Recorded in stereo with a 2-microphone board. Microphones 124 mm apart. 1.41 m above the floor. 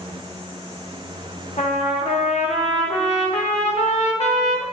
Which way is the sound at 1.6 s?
60° left (ahead or behind).